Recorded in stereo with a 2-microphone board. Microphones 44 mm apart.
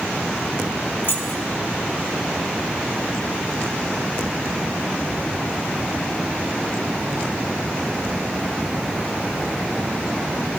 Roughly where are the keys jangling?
Left.